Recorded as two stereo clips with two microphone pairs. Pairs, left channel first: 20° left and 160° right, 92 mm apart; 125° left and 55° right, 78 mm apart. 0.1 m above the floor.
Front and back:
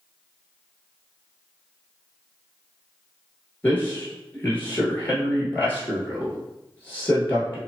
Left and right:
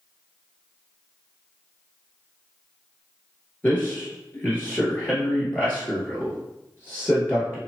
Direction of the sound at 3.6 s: 75° left.